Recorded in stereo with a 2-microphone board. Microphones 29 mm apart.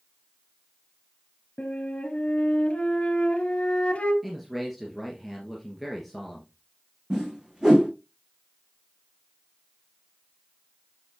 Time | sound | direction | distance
1.6 | a flute | 45° left (ahead or behind) | 2.5 m
4.2 | a man speaking | 5° right (ahead or behind) | 1.8 m
7.1 | a whoosh | 30° right (ahead or behind) | 1.9 m